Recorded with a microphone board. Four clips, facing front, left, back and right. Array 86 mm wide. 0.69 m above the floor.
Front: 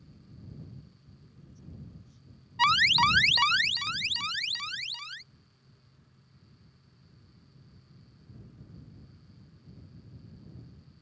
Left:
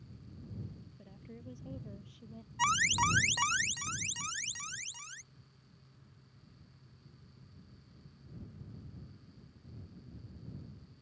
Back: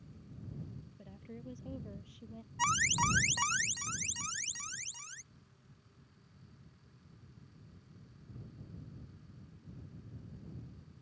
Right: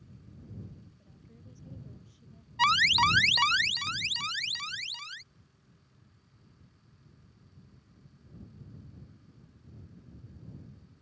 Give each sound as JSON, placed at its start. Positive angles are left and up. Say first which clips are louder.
{"t": 1.0, "sound": "a woman speaking", "louder": "left 6 dB, back 9 dB", "azimuth_deg": 155}
{"t": 2.6, "sound": "an alarm", "louder": "right 6 dB, front 8 dB", "azimuth_deg": -35}